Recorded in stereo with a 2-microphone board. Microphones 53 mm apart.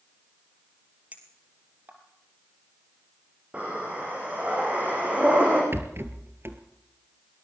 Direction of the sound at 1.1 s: 30° right (ahead or behind).